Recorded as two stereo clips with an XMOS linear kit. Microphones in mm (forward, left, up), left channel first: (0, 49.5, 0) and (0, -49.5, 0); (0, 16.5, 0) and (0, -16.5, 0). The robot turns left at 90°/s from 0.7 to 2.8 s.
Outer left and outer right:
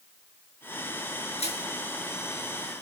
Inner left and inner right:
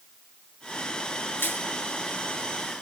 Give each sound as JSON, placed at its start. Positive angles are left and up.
{"t": 1.4, "sound": "crushing", "side_deg": 85, "distance_m": 7.0}